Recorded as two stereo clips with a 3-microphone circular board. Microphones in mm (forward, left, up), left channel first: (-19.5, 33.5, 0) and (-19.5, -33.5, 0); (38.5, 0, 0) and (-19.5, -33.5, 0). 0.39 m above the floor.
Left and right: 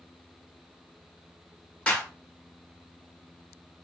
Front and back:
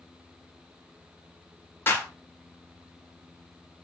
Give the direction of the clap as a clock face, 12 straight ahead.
11 o'clock.